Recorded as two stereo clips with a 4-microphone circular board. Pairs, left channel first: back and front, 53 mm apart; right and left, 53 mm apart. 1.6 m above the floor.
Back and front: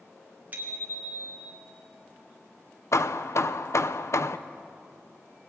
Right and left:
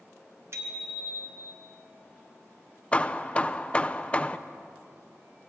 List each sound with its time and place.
0.5 s a bicycle bell: 55° left, 3.5 m; by 1.6 s 35° left, 3.5 m
2.9 s hammering: 155° right, 0.8 m